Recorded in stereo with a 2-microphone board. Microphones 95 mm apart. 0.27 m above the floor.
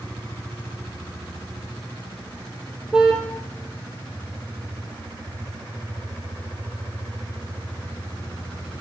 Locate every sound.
2.9 s a car horn: 10° right (ahead or behind), 4.5 m